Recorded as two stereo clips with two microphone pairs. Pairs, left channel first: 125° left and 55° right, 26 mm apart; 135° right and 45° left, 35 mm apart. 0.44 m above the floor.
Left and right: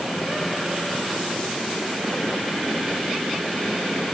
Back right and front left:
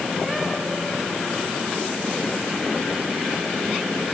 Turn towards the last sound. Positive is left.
No sound to turn to.